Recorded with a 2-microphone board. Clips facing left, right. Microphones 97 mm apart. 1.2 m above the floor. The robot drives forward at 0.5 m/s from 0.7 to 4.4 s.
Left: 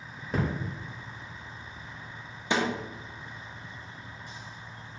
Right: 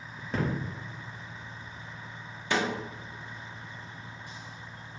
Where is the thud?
5° left (ahead or behind), 0.7 m.